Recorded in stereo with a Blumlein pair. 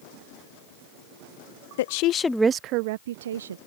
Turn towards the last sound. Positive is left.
turn(degrees=-65)